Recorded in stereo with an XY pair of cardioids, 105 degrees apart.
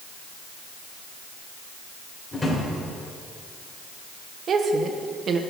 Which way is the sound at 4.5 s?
55° right.